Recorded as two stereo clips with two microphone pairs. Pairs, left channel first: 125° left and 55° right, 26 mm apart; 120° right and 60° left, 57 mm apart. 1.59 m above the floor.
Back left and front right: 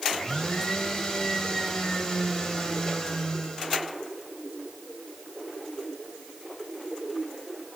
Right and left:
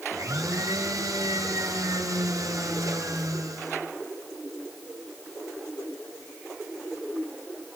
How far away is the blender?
About 3.5 m.